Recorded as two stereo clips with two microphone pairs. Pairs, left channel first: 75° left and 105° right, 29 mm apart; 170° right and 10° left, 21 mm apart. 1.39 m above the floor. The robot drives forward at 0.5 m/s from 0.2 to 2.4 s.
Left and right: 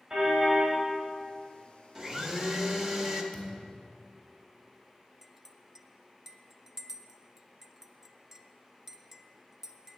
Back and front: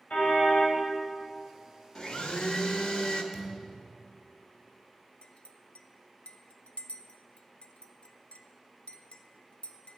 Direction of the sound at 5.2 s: Straight behind.